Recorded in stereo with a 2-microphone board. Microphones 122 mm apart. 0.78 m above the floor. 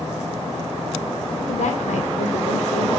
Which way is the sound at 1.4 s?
75° left (ahead or behind).